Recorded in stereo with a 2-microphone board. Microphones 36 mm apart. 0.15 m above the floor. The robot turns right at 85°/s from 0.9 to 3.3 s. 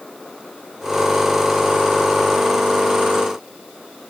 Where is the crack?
No crack in this recording.